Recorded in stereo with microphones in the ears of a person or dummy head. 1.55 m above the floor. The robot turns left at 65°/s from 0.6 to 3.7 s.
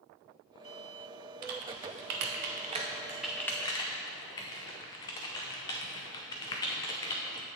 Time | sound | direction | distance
1.4 | typing on a keyboard | 50° right (ahead or behind) | 0.6 m